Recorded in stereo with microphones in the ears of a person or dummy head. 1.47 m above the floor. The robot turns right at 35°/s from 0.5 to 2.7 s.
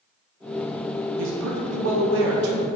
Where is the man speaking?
105° right, 1.0 m; by 2.7 s 55° right, 1.0 m.